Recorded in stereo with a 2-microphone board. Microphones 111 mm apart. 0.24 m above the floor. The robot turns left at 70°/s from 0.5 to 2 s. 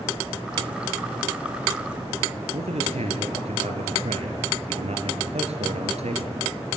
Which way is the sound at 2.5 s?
75° right (ahead or behind).